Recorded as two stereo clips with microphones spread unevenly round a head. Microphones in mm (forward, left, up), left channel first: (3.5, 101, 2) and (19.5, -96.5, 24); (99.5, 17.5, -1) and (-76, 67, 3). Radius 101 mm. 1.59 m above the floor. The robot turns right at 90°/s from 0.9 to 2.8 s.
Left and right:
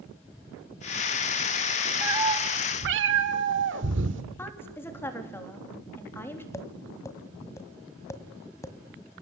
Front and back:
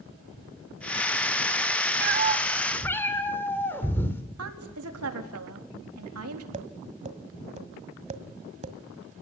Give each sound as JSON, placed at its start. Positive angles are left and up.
{"t": 2.0, "sound": "a cat meowing", "azimuth_deg": -165, "distance_m": 2.0}
{"t": 4.4, "sound": "a woman speaking", "azimuth_deg": 175, "distance_m": 4.0}
{"t": 6.5, "sound": "tapping", "azimuth_deg": 170, "distance_m": 1.7}